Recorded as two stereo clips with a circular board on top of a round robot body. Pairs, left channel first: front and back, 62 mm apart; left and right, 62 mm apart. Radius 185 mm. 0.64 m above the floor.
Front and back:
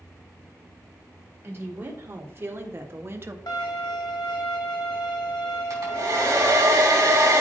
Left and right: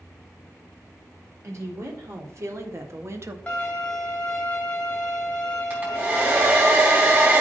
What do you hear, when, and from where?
1.4 s a woman speaking: 125° right, 2.5 m; by 3.4 s 130° right, 1.1 m
3.5 s a violin: 15° left, 1.6 m
5.7 s a hair dryer: 145° right, 3 m